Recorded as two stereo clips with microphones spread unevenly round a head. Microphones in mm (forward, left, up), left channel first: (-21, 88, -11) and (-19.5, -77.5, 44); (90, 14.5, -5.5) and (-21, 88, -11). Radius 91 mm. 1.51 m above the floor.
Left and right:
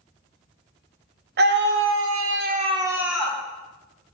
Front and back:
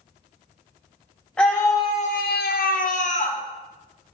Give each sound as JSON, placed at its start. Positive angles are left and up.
{"t": 1.4, "sound": "a scream", "azimuth_deg": -120, "distance_m": 1.1}